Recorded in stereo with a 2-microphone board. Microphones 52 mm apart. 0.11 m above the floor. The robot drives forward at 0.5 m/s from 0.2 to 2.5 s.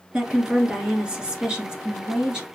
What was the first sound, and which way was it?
A woman speaking, 20° right (ahead or behind).